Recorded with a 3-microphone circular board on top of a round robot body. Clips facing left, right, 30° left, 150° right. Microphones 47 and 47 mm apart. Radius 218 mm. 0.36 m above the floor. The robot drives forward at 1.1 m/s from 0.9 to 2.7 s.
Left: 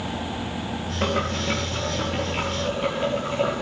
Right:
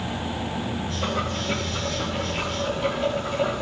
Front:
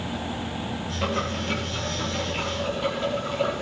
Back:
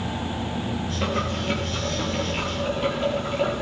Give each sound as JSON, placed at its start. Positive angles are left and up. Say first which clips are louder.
{"t": 1.0, "sound": "boiling", "louder": "left 4 dB, back 1 dB", "azimuth_deg": 130, "distance_m": 4.0}